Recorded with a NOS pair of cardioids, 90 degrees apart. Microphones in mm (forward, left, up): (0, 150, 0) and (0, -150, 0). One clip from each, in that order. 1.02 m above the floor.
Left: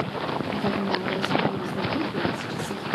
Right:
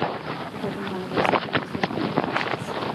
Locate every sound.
0.5 s a woman speaking: 30° left, 2.5 m